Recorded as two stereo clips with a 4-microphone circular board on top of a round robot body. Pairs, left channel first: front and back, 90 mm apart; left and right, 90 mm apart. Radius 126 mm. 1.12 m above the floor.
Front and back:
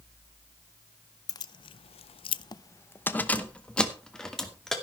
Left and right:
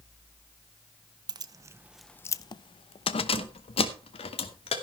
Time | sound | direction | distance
1.3 | keys jangling | 50° right | 0.8 m